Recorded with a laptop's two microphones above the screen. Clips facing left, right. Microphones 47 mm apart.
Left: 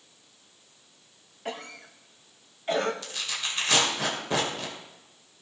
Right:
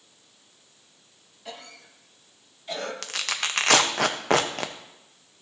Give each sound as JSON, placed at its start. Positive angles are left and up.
{"t": 1.4, "sound": "a cough", "side_deg": 40, "distance_m": 1.4}
{"t": 3.0, "sound": "tearing paper", "side_deg": -65, "distance_m": 0.8}